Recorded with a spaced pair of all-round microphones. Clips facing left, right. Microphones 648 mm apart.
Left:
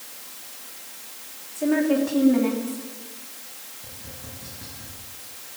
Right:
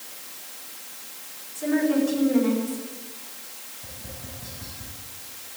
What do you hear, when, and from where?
1.6 s a woman speaking: 75° left (ahead or behind), 3.5 m
3.8 s tapping: 15° right (ahead or behind), 6 m